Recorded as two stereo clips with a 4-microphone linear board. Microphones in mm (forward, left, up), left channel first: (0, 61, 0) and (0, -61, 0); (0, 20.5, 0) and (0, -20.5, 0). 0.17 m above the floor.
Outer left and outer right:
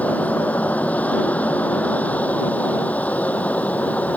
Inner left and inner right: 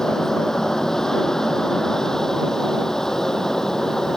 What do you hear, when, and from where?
0.0 s an aircraft: 10° left (ahead or behind)